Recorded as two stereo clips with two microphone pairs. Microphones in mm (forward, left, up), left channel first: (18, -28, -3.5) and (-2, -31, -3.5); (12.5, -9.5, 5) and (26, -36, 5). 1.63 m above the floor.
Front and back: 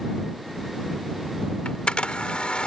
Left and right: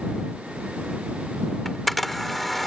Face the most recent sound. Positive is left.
turn(degrees=30)